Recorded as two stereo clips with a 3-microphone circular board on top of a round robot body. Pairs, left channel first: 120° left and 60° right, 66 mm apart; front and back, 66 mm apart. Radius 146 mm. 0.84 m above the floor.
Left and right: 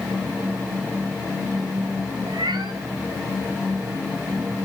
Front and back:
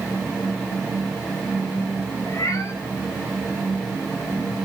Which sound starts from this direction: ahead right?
A cat meowing, at 2.3 s.